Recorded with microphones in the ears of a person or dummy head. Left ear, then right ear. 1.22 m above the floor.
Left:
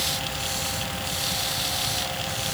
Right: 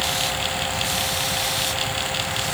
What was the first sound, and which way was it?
Only background noise.